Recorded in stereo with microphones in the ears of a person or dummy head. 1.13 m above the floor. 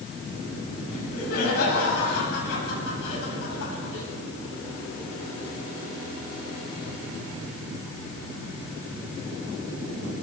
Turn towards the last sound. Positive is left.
turn(degrees=70)  # may be behind; listen again after turning